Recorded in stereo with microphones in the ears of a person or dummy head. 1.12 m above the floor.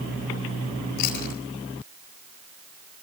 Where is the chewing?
50° left (ahead or behind), 4 m.